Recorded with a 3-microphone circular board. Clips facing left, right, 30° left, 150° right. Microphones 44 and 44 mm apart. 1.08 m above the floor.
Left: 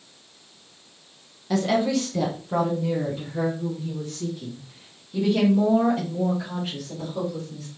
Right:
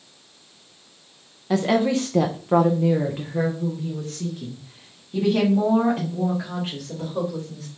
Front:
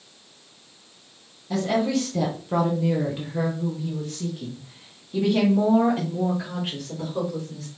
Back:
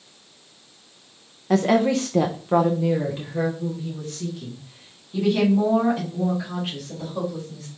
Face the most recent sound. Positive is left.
turn(degrees=-30)